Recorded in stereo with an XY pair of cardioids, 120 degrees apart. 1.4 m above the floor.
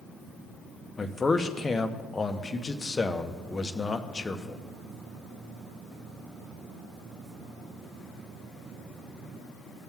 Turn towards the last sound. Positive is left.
turn(degrees=20)